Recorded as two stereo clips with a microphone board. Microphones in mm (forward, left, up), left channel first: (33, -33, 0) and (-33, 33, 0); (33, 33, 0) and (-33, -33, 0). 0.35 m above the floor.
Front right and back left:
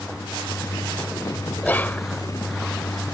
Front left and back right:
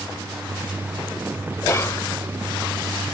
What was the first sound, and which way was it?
Whispering, 15° left.